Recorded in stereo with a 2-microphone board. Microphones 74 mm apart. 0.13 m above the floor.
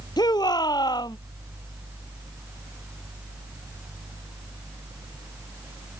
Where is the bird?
No bird in this recording.